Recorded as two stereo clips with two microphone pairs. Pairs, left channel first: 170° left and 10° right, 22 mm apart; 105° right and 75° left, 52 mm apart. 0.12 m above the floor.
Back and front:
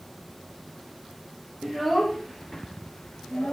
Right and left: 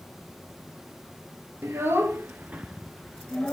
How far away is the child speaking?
About 1.5 m.